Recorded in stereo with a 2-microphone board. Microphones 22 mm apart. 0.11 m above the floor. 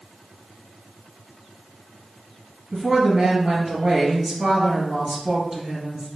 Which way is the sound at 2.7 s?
30° right (ahead or behind).